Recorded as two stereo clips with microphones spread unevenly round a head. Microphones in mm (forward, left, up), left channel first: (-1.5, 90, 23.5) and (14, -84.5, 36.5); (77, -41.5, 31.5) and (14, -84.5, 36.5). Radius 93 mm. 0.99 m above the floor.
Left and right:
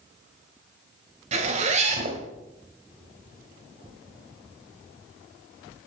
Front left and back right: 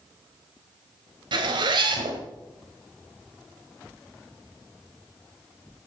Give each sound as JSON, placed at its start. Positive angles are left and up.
{"t": 1.3, "sound": "a zipper", "azimuth_deg": -140, "distance_m": 1.7}